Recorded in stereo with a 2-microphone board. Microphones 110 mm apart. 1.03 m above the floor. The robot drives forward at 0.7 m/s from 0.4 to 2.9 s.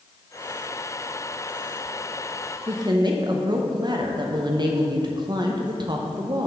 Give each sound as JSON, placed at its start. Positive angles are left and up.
{"t": 2.7, "sound": "a woman speaking", "side_deg": -35, "distance_m": 0.8}